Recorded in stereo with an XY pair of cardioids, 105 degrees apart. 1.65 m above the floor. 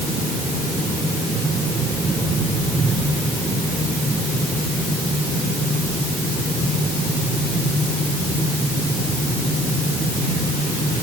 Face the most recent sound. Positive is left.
No sound to turn to.